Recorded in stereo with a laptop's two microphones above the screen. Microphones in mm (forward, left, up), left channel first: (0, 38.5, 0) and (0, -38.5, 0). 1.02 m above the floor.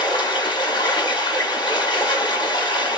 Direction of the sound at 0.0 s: 75° left (ahead or behind).